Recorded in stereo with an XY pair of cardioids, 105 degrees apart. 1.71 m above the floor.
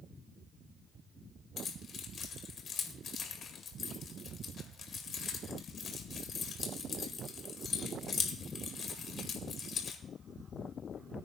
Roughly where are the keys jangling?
Ahead left.